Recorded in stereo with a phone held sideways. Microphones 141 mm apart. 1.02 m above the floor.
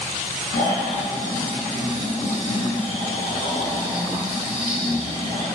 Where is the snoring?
65° left (ahead or behind), 8 m.